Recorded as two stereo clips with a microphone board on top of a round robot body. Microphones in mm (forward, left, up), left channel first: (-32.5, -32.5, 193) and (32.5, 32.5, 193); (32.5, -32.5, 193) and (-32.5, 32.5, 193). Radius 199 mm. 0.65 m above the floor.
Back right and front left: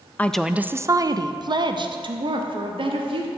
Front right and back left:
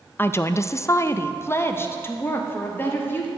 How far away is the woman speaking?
About 0.5 m.